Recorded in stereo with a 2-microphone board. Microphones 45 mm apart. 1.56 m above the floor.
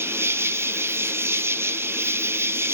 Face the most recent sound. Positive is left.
turn(degrees=-65)  # may be behind; listen again after turning